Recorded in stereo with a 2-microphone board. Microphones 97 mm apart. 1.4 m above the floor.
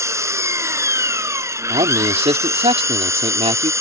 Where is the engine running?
30° right (ahead or behind).